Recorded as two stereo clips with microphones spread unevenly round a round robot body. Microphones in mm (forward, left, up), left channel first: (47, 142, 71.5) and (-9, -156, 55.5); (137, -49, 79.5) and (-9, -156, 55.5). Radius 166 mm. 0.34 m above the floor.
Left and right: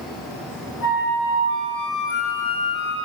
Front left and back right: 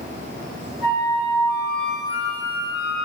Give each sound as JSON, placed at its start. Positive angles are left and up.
{"t": 0.8, "sound": "a flute", "azimuth_deg": 30, "distance_m": 3.5}